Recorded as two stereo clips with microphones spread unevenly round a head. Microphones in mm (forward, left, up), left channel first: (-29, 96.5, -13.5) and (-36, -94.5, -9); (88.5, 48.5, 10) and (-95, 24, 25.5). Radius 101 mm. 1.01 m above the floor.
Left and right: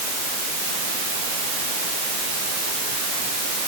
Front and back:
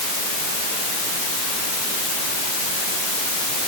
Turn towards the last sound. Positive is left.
No sound to turn to.